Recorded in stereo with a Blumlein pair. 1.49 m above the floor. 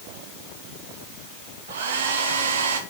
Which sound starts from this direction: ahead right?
A hair dryer, at 1.7 s.